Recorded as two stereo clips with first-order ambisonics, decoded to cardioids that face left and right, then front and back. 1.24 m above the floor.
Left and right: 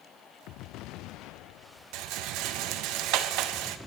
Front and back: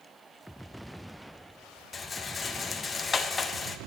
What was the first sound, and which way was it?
A rattle, 70° right.